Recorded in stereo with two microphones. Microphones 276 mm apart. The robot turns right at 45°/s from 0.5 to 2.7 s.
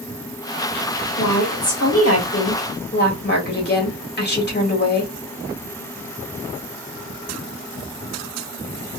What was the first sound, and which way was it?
A woman speaking, 65° left.